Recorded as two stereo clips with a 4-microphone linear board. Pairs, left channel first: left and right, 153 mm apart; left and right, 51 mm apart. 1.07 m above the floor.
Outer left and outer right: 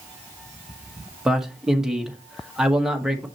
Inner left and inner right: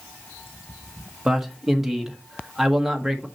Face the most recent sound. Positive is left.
turn(degrees=-5)  # may be behind; listen again after turning